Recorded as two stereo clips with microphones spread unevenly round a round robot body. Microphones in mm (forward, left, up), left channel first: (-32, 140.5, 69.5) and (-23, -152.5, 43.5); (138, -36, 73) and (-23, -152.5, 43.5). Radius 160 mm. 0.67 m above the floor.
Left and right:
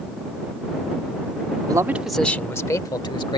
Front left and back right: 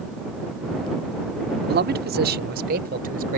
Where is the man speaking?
160° right; by 3.4 s 165° left.